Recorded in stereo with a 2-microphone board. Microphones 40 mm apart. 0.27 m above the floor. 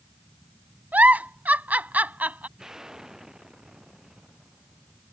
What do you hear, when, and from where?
0.9 s a giggle: 50° right (ahead or behind)
2.6 s an explosion: 15° right (ahead or behind)